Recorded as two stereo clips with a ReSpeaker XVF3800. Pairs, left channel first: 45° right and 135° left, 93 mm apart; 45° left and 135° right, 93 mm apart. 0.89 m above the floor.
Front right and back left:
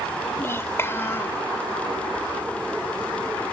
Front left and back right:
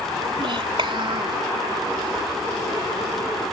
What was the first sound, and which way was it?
A child speaking, 110° right.